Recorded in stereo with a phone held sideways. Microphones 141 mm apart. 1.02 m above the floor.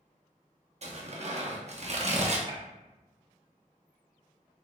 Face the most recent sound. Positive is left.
turn(degrees=-35)  # may be behind; listen again after turning